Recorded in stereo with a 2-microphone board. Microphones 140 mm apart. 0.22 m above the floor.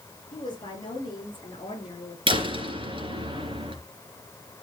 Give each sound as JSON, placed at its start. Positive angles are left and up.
{"t": 0.3, "sound": "a woman speaking", "side_deg": 30, "distance_m": 5.5}
{"t": 2.3, "sound": "a door slam", "side_deg": -40, "distance_m": 2.5}